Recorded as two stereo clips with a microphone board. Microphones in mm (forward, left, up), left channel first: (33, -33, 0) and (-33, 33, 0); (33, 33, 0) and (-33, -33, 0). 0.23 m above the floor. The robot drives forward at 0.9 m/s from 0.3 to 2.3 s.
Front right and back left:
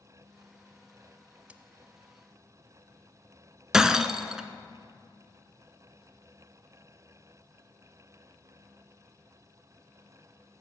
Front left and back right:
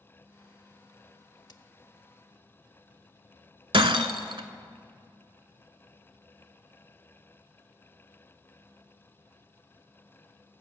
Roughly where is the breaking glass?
Behind right.